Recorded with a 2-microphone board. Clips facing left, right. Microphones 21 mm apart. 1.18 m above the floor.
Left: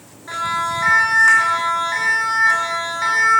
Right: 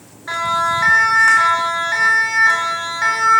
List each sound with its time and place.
0.3 s a siren: 20° right (ahead or behind), 8 m; by 3.4 s 5° right (ahead or behind), 7 m